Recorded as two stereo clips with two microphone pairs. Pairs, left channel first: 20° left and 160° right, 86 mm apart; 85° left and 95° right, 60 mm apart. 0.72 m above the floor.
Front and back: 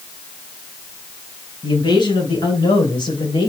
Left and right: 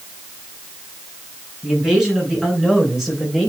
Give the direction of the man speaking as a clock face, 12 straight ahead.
12 o'clock.